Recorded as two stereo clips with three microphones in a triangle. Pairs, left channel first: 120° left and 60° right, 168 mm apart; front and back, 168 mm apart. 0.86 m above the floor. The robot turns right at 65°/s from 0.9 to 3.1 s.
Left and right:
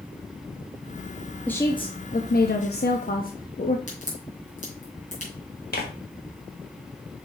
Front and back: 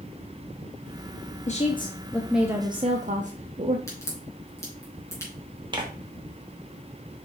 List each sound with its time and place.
1.5 s a woman speaking: 40° left, 0.8 m; by 3.8 s 145° left, 0.8 m
3.9 s a crack: 75° left, 3 m
5.7 s tearing paper: 120° left, 1.5 m